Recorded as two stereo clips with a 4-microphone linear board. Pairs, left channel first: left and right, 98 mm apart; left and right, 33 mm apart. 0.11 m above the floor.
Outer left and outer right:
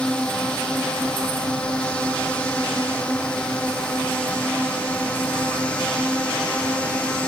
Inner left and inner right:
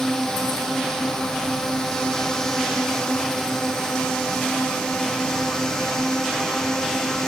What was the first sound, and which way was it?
A drone, 10° left (ahead or behind).